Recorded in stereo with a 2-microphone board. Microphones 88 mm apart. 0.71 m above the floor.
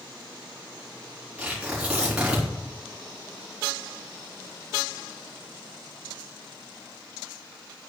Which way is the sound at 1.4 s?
10° right (ahead or behind).